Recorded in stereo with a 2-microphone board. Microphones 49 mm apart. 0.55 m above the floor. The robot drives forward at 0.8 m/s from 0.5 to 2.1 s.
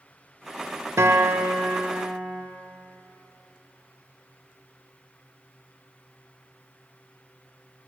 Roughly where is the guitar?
Right.